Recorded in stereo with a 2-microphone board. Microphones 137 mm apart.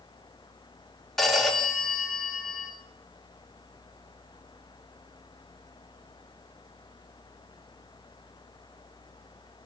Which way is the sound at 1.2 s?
5° left (ahead or behind).